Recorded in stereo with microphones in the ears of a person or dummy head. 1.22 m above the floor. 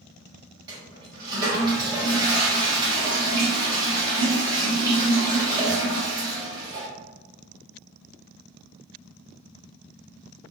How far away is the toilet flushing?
About 1.1 m.